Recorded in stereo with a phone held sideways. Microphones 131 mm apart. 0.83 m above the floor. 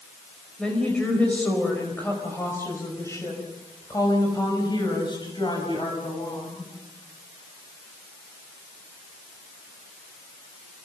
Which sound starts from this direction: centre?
A woman speaking, at 0.6 s.